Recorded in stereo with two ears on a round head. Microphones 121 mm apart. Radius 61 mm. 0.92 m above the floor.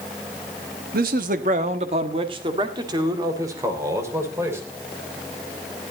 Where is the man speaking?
75° right (ahead or behind), 1.1 m; by 4.6 s 20° right (ahead or behind), 3.5 m.